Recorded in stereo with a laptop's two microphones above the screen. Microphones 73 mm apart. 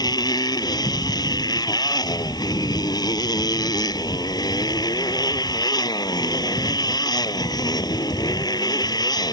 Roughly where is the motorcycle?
Left.